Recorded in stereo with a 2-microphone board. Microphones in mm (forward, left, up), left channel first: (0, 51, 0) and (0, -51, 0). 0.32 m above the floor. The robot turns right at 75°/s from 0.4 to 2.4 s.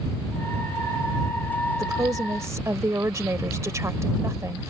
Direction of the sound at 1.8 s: 105° right.